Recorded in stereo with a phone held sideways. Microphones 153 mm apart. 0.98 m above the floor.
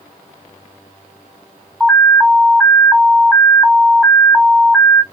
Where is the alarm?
Centre (ahead or behind), 0.6 m.